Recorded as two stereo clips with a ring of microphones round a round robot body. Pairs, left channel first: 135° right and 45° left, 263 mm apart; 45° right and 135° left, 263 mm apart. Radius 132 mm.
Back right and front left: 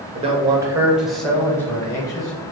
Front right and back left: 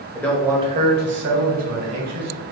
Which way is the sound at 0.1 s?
20° left.